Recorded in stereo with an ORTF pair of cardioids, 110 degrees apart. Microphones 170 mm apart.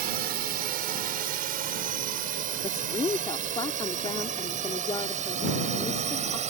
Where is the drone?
65° right; by 6.5 s 45° right.